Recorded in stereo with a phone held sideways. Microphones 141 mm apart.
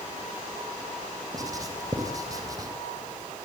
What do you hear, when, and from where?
1.3 s writing: 25° right (ahead or behind), 4 m